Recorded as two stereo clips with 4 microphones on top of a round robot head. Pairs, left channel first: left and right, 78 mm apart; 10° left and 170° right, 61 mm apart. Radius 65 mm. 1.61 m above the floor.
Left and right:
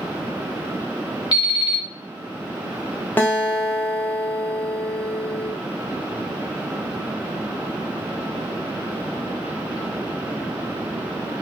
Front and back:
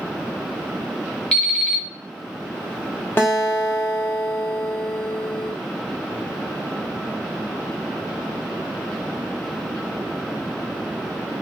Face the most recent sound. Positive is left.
turn(degrees=35)